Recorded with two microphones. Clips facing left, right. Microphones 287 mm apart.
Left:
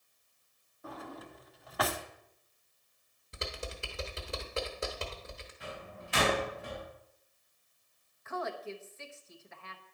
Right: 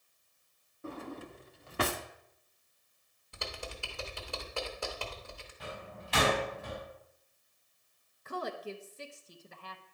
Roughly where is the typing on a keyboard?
Left.